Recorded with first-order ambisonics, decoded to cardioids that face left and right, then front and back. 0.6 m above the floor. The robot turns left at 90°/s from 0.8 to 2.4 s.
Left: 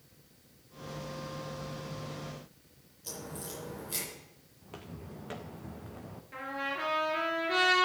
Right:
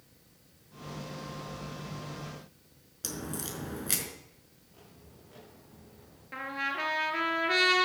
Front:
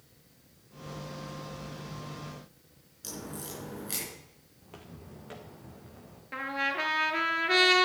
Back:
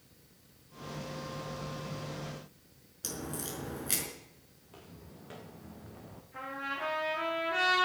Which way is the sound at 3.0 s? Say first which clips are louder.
Right 4 dB, back 2 dB; 110° right.